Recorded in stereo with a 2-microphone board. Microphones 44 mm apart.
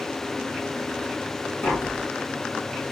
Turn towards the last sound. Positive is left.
turn(degrees=60)  # may be behind; listen again after turning